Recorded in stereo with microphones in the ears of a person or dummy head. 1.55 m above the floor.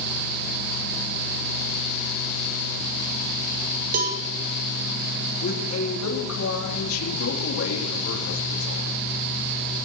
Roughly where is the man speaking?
Left.